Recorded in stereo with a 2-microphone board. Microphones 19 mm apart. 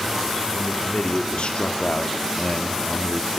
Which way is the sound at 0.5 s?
85° left.